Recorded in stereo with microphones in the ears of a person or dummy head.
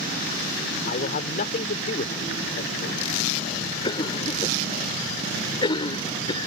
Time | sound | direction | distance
0.9 | a man speaking | 50° left (ahead or behind) | ?
3.8 | a cough | 30° left (ahead or behind) | ?